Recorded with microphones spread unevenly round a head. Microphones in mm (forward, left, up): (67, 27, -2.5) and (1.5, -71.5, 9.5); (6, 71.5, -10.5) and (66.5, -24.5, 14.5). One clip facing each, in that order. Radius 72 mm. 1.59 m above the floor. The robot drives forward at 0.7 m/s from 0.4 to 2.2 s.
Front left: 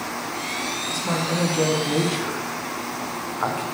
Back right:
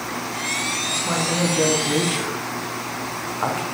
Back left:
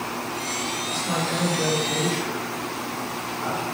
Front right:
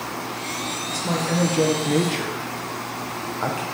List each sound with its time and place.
0.9 s a man speaking: 20° right, 2.0 m; by 3.6 s 40° right, 1.2 m